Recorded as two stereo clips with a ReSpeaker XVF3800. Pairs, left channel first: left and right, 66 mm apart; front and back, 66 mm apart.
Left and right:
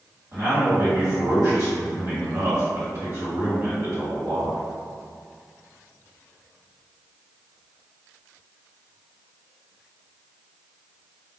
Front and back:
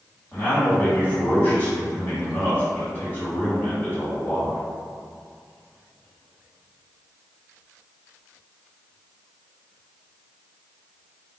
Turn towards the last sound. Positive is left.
turn(degrees=-60)